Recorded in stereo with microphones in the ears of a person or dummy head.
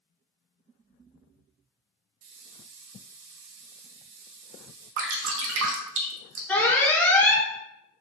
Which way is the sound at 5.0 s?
55° right (ahead or behind).